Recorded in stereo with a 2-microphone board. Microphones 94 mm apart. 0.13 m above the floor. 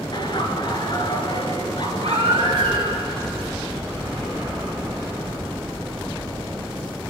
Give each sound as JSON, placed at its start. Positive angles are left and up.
{"t": 0.1, "sound": "laughter", "side_deg": 50, "distance_m": 2.5}
{"t": 2.0, "sound": "a baby crying", "side_deg": -65, "distance_m": 7.0}